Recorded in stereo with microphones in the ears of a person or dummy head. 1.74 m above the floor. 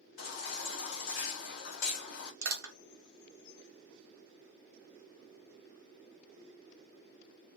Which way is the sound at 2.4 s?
75° right (ahead or behind).